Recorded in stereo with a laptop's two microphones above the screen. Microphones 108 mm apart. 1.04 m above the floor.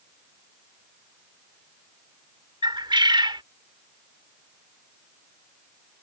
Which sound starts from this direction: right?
A bird, at 2.6 s.